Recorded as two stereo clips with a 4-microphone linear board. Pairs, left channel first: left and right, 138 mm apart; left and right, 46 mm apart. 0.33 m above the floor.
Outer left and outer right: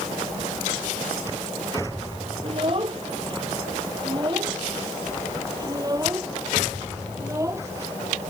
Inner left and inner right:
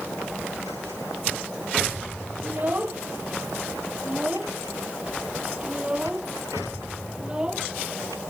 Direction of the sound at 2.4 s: 45° right (ahead or behind).